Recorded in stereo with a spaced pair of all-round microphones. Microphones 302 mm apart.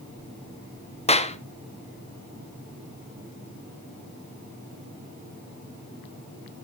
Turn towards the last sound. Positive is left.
turn(degrees=20)  # may be behind; listen again after turning